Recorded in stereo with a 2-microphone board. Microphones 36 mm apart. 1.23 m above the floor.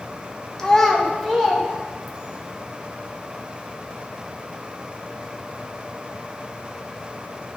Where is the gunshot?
I don't hear a gunshot.